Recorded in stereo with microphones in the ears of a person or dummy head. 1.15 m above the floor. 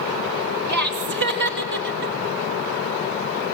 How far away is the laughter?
About 3.5 m.